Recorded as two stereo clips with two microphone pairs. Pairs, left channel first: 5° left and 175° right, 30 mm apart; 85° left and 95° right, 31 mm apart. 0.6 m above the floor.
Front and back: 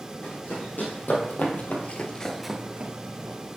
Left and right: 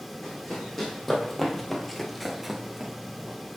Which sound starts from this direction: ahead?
Running footsteps, at 0.2 s.